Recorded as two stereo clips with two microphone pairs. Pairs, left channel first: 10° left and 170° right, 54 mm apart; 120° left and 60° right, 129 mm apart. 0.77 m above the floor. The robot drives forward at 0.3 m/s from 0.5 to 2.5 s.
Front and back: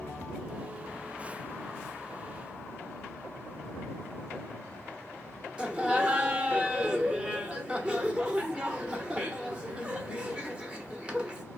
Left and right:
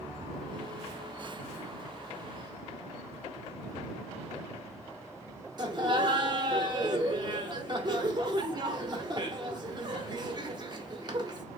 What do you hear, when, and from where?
5.6 s laughter: 105° right, 0.9 m